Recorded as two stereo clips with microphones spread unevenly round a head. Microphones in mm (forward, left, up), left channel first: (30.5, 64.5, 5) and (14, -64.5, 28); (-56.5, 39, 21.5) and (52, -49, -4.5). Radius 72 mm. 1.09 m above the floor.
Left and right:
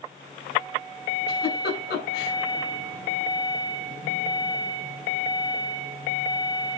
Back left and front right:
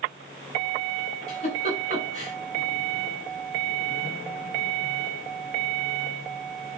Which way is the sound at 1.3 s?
95° left.